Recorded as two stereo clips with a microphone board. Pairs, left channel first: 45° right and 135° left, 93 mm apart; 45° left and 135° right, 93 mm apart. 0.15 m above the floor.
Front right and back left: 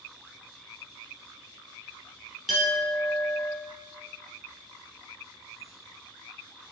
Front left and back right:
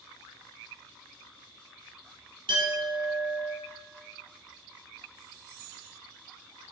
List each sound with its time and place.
2.5 s a clink: 130° right, 1.9 m